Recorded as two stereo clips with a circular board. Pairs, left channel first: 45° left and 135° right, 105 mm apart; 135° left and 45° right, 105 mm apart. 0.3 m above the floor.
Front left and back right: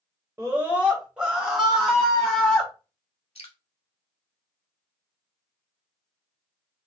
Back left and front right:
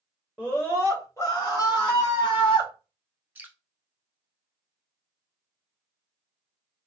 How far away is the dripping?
About 0.7 m.